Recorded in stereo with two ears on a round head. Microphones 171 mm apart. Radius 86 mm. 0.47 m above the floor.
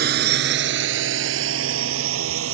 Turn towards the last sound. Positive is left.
turn(degrees=-85)